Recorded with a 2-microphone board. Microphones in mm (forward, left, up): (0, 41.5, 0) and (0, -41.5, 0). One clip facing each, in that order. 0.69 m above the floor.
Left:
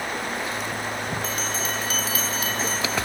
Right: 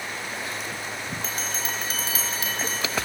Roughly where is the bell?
Right.